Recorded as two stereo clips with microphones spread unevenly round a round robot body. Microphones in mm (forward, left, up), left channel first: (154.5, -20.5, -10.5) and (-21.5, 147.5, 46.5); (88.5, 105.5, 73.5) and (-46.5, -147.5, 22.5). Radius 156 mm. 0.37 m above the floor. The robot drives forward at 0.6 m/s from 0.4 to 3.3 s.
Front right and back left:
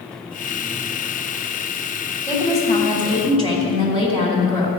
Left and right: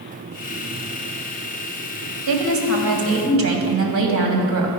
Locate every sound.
2.3 s a woman speaking: 135° right, 1.8 m; by 4.7 s 145° right, 2 m